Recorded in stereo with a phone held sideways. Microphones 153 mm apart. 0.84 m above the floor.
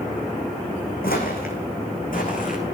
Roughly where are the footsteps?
Left.